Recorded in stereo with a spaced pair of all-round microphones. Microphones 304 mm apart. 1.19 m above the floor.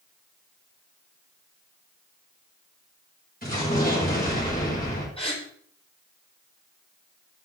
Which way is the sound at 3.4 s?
30° left (ahead or behind).